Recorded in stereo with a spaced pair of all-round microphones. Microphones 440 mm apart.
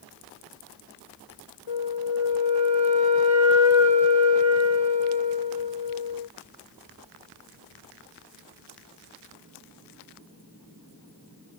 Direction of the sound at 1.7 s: 85° left.